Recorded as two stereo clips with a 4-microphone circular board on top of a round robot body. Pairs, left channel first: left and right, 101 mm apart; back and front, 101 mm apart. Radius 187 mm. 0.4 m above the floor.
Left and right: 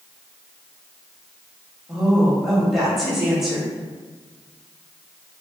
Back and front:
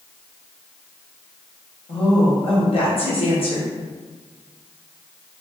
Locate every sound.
1.9 s a woman speaking: 175° right, 1.6 m